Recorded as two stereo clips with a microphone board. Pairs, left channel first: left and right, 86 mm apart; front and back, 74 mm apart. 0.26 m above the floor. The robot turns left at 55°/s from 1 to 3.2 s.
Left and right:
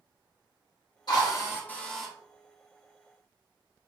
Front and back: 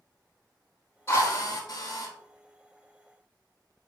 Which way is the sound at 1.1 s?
55° left.